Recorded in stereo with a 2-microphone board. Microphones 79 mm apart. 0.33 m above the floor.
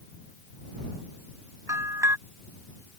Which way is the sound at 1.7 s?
45° right (ahead or behind).